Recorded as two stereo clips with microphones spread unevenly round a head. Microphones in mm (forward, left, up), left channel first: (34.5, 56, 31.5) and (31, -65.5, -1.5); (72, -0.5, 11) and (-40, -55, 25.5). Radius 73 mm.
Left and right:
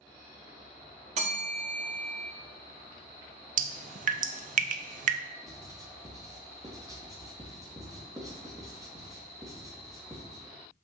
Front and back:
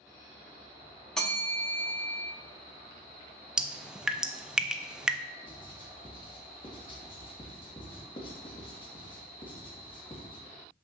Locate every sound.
1.2 s a bell: 65° right, 1.5 m
3.6 s dripping: 70° right, 0.6 m
5.4 s writing: 25° right, 1.7 m